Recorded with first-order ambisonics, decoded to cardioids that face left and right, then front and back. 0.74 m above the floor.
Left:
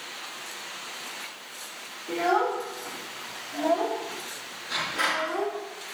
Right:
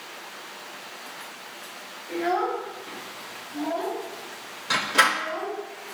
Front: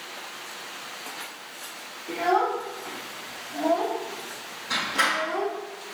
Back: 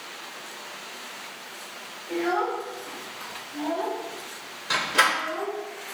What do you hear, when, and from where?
2.1 s a child speaking: 55° left, 3.5 m
4.7 s a door slam: 125° right, 2 m